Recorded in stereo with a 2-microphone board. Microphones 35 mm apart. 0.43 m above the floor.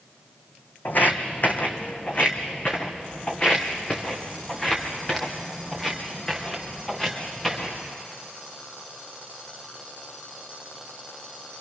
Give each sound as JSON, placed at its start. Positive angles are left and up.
{"t": 0.8, "sound": "footsteps", "side_deg": 55, "distance_m": 1.7}